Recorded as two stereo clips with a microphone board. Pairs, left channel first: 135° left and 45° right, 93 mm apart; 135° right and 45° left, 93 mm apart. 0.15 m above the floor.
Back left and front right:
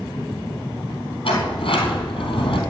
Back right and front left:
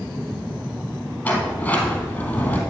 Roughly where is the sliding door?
Behind left.